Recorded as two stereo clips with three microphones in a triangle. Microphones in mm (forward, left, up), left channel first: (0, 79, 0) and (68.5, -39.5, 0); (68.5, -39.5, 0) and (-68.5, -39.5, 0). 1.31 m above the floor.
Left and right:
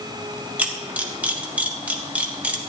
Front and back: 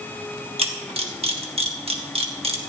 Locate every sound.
0.6 s a camera shutter: 140° right, 1.3 m